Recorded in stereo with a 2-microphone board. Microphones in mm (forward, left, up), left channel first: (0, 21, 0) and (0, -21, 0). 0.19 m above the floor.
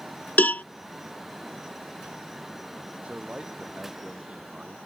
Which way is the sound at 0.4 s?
45° left (ahead or behind).